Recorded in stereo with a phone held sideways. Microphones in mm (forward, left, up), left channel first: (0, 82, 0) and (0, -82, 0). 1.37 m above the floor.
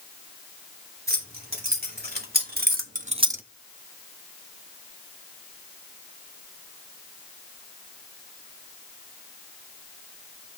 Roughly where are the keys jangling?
Right.